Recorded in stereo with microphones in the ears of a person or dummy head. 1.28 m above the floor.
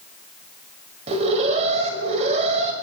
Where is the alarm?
40° right (ahead or behind), 6 m.